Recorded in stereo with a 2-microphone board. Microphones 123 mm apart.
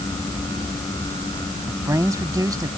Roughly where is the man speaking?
Right.